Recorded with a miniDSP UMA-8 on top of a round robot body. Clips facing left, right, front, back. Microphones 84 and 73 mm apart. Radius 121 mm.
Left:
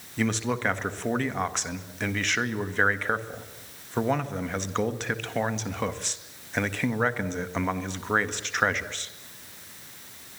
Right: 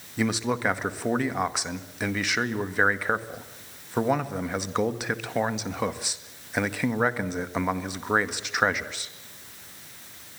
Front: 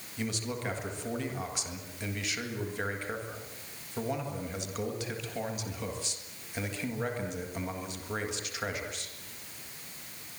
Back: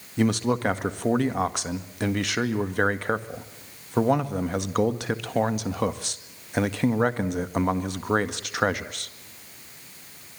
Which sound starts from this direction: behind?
A man speaking, at 0.2 s.